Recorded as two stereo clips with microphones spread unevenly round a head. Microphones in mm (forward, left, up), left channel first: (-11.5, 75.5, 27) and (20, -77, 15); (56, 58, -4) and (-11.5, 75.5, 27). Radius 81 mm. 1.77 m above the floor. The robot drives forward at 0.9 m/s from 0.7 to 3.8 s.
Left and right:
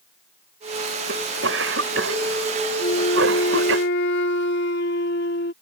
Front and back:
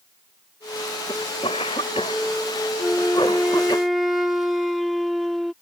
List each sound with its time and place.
1.1 s a cough: 65° right; by 3.8 s 85° right
2.8 s a flute: 70° left; by 5.5 s 80° left